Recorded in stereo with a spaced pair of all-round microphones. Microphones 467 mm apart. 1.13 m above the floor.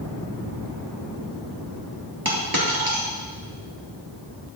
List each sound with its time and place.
2.2 s a dropped coin: 50° right (ahead or behind), 3 m